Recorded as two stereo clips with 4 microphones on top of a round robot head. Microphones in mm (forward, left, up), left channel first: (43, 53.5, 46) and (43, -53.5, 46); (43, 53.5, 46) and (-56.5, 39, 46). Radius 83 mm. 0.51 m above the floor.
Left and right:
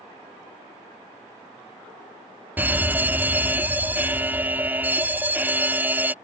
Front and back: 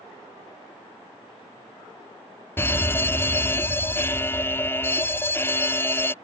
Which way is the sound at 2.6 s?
35° right.